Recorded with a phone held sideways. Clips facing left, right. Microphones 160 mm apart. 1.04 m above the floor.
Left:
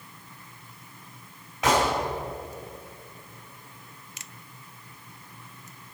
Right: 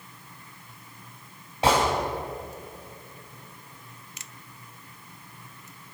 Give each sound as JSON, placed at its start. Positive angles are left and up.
{"t": 1.6, "sound": "a gunshot", "side_deg": -30, "distance_m": 3.0}